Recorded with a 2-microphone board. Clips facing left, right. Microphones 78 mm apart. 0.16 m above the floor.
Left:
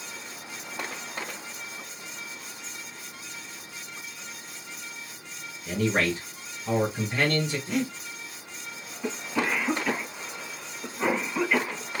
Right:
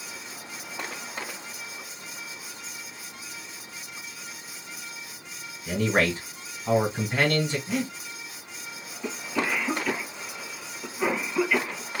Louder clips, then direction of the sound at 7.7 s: Left 1 dB; 5° right (ahead or behind).